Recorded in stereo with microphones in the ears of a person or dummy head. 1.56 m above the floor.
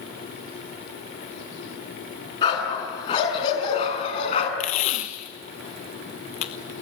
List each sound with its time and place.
2.4 s a dog barking: 40° left (ahead or behind), 5.5 m; by 4.5 s 50° left (ahead or behind), 5 m
4.6 s tape being pulled: 40° left (ahead or behind), 1.2 m